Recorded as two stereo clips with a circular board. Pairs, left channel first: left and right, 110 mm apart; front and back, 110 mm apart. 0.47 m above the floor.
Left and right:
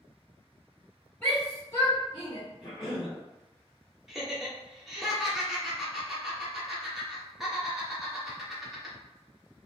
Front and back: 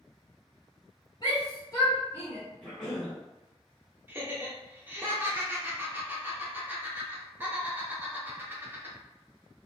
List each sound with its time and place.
1.2 s a shout: 25° left, 1.6 m; by 2.4 s 65° left, 1.6 m
2.6 s a cough: 85° left, 1.8 m
4.1 s laughter: 175° right, 0.8 m